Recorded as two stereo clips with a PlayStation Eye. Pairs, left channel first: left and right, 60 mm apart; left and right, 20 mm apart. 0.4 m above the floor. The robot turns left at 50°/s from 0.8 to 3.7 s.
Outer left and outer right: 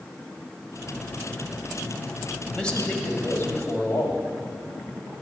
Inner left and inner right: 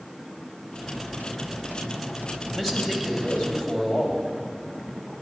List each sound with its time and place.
2.5 s a man speaking: 165° left, 2.5 m; by 4.3 s 110° left, 2.5 m